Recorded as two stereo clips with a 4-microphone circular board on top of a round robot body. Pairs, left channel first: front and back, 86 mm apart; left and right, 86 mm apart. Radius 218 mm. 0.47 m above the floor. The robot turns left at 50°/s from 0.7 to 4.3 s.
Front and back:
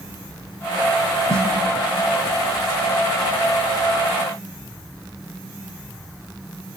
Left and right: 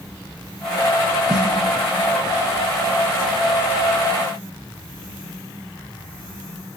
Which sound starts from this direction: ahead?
A snare drum, at 1.3 s.